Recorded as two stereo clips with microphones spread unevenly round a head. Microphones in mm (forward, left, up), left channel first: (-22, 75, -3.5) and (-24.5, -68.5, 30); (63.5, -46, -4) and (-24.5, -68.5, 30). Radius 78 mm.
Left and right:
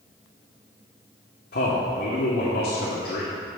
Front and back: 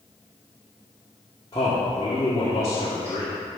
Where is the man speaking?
75° left, 1.7 m.